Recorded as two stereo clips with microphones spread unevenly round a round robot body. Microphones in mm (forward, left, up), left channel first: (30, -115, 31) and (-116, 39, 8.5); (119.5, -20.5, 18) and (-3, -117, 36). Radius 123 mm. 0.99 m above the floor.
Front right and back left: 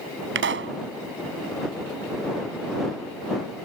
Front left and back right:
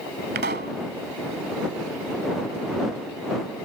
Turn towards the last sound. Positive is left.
turn(degrees=165)